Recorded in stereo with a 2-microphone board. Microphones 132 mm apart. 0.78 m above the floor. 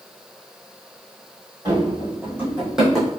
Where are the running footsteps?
30° right (ahead or behind), 2.0 m; by 3.1 s 5° left (ahead or behind), 1.6 m.